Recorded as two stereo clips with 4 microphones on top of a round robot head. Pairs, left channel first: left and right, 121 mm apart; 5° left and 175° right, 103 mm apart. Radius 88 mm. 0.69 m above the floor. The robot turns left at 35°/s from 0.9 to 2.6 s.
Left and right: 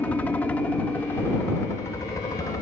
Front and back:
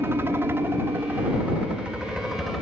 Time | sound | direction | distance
0.0 | a helicopter | 155° left | ?